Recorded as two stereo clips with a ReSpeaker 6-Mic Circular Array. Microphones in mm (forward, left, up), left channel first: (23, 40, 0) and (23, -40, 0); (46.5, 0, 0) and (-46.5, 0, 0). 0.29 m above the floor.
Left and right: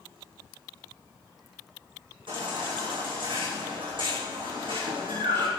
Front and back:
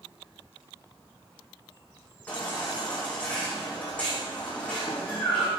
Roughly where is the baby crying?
Right.